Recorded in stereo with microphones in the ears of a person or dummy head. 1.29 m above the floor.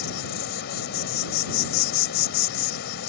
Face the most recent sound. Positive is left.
turn(degrees=50)  # may be behind; listen again after turning